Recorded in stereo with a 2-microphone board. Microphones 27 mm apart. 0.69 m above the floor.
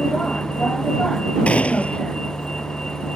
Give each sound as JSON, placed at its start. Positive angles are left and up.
{"t": 0.0, "sound": "a vehicle", "side_deg": 35}
{"t": 1.5, "sound": "a gunshot", "side_deg": 55}